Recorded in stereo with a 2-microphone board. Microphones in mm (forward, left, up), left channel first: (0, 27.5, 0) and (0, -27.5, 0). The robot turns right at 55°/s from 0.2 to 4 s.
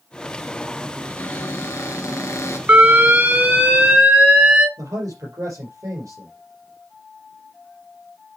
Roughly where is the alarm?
Right.